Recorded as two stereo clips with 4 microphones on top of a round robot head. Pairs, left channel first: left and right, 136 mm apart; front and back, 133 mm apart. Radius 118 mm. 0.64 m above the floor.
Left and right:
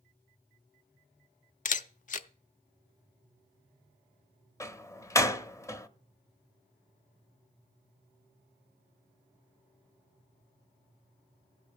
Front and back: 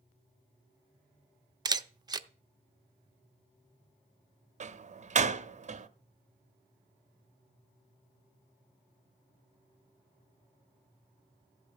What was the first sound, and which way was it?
A camera shutter, 120° left.